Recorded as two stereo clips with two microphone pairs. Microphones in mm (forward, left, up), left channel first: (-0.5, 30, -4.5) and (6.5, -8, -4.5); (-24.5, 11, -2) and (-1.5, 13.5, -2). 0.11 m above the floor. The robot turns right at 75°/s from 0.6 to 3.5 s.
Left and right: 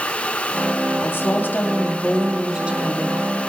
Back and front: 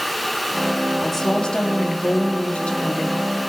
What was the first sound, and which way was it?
A woman speaking, 100° left.